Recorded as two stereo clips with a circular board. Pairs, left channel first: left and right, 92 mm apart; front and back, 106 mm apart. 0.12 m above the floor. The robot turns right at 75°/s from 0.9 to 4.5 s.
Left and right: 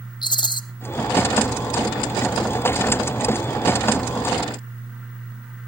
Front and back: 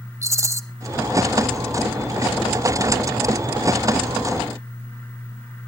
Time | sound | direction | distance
0.2 | a rattle | 115° left | 0.7 m